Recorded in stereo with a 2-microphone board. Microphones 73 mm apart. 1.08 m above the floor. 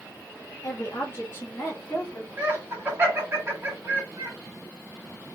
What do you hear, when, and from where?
0.6 s a woman speaking: 45° left (ahead or behind), 1.4 m; by 2.3 s 25° left (ahead or behind), 2.5 m
2.4 s laughter: 30° right (ahead or behind), 2 m